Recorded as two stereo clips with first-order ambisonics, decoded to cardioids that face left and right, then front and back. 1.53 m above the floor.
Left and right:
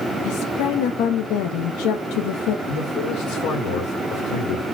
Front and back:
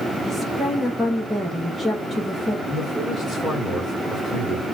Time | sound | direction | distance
0.2 | a woman speaking | 90° left | 0.8 m
2.7 | a man speaking | 95° left | 1.6 m